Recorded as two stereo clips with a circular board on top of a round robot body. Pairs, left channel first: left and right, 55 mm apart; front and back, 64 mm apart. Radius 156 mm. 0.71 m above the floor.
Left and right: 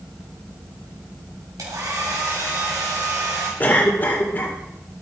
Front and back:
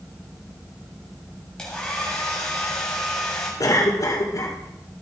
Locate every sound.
1.6 s a hair dryer: 80° right, 2.5 m
3.6 s a cough: 35° left, 2.5 m